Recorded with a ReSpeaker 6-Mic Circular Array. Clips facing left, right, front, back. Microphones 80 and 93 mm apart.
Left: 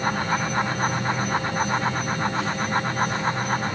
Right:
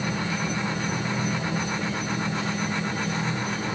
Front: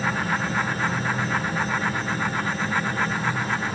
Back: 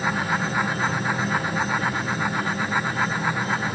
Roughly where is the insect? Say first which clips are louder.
Left 4 dB, back 1 dB; behind.